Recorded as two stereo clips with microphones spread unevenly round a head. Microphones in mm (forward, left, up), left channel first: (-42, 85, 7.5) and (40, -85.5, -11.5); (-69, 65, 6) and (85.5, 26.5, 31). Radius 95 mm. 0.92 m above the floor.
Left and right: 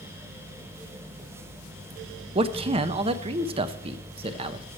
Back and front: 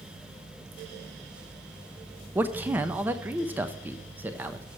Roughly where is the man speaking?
Right.